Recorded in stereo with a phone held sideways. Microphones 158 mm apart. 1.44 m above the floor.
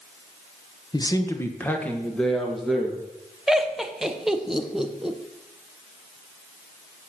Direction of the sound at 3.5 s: Centre (ahead or behind).